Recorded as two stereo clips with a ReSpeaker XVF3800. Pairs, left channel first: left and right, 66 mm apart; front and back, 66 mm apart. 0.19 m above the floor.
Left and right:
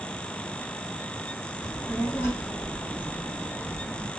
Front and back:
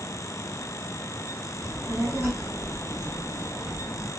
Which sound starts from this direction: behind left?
A child speaking, at 1.6 s.